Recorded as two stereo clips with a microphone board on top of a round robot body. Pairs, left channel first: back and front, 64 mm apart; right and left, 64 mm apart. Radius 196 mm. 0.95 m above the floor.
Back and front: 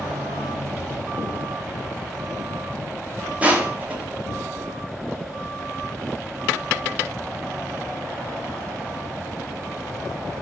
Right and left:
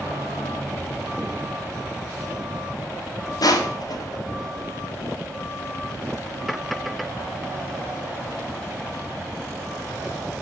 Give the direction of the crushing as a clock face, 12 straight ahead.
2 o'clock.